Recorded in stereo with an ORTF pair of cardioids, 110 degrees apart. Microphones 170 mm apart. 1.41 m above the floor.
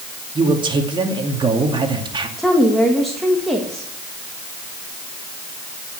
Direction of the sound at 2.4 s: Straight ahead.